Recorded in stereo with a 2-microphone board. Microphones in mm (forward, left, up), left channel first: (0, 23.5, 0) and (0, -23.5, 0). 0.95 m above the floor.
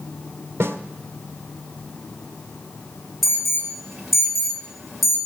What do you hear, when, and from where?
0.6 s a snare drum: 65° right (ahead or behind), 1.7 m
3.2 s an alarm: centre (ahead or behind), 3 m